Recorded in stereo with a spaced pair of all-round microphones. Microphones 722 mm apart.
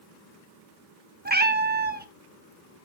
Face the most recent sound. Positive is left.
turn(degrees=-15)  # may be behind; listen again after turning